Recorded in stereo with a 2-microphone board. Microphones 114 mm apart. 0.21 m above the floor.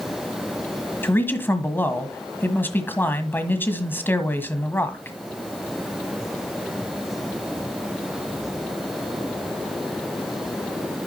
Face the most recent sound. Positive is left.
turn(degrees=20)  # may be behind; listen again after turning